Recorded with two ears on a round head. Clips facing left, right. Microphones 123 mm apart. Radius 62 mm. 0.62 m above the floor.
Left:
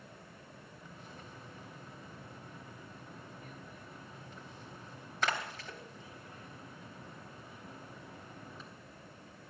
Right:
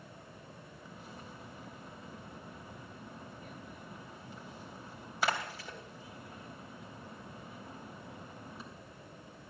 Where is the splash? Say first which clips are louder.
Right 2 dB; 10° right (ahead or behind), 3 m.